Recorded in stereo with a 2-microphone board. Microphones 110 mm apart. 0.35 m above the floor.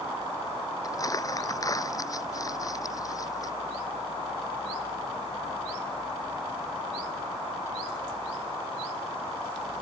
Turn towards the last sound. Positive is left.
turn(degrees=35)  # may be behind; listen again after turning